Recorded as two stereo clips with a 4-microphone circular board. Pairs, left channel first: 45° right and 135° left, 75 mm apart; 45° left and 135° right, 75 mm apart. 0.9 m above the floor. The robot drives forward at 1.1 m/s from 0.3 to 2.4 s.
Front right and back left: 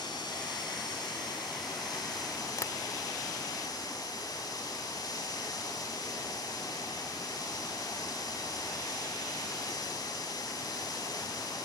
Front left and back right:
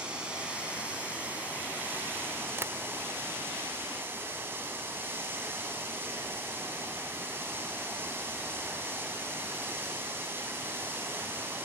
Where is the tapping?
85° right, 0.9 m.